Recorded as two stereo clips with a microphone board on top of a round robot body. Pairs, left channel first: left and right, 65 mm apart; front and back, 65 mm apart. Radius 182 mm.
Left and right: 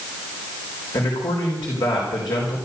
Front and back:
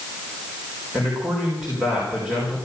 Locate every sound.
0.9 s a man speaking: 105° left, 4.5 m